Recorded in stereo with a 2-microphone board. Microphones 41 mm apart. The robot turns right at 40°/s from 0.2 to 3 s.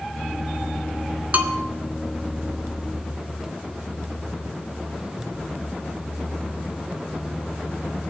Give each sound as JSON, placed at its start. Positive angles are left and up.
{"t": 1.3, "sound": "a bell", "side_deg": -35, "distance_m": 1.4}